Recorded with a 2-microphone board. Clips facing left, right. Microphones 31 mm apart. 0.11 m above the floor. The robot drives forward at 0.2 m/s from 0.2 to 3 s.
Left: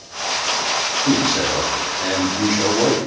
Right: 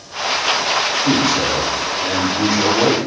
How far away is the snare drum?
No snare drum in this recording.